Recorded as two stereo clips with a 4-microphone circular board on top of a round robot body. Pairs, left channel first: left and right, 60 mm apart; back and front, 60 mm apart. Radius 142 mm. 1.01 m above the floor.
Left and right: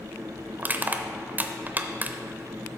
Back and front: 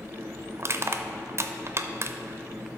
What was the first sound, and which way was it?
Crushing, 35° right.